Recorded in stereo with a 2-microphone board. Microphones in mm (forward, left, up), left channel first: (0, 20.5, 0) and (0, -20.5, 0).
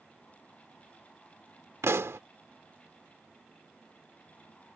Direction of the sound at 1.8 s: 85° right.